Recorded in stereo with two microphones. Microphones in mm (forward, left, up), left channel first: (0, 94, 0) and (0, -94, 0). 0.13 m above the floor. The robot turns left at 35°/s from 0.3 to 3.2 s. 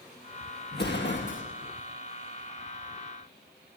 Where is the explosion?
60° left (ahead or behind), 4.5 m; by 1.4 s 85° left, 4.5 m.